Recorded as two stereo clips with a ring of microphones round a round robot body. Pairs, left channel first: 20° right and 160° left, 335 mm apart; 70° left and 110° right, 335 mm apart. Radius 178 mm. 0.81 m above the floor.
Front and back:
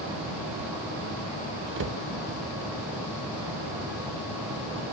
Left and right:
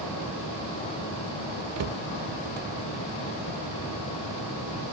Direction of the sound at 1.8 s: 150° right.